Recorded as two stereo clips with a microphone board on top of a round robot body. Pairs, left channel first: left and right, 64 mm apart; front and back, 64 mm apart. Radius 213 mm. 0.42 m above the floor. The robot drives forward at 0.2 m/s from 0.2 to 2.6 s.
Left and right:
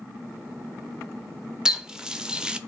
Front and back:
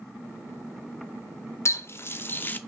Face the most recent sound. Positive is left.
turn(degrees=-25)